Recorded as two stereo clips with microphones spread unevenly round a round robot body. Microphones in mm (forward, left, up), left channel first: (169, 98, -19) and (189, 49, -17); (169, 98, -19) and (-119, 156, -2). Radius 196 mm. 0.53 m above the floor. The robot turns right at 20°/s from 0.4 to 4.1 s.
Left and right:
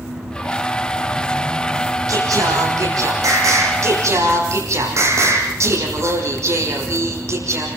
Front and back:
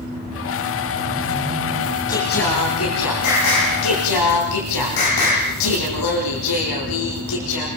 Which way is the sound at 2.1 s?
85° right.